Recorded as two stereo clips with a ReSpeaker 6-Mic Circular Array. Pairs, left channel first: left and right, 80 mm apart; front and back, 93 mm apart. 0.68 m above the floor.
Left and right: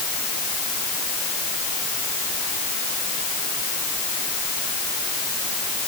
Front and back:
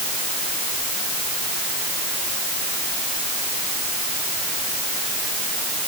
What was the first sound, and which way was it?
Only background noise.